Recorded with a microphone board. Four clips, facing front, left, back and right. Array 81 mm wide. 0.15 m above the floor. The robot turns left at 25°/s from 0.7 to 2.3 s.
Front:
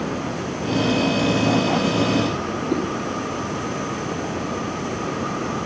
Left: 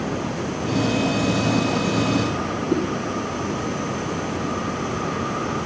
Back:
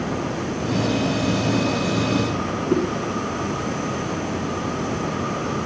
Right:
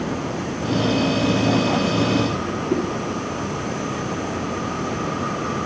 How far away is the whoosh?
About 1.3 m.